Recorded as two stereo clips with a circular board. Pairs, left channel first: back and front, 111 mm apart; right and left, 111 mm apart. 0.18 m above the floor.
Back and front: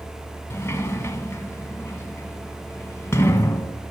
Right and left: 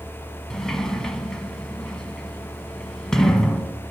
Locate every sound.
0.5 s a sliding door: 170° right, 1.0 m